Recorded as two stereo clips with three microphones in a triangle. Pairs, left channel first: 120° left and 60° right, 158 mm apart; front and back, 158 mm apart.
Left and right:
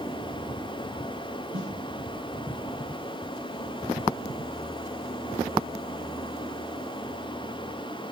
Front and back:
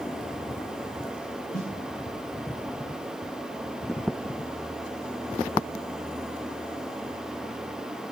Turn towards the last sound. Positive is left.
turn(degrees=-25)